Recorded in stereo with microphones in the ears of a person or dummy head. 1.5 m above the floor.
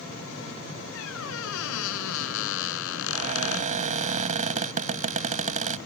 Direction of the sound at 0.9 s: 70° left (ahead or behind).